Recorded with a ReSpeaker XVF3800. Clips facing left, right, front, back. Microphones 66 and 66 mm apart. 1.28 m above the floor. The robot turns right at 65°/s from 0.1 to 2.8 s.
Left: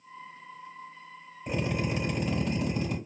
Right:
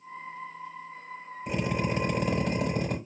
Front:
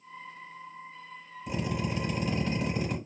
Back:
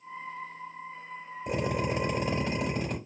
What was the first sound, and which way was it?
A drill, 175° right.